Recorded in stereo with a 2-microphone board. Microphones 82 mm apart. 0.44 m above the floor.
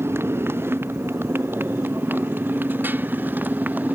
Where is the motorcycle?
30° right (ahead or behind); by 4.0 s 20° right (ahead or behind).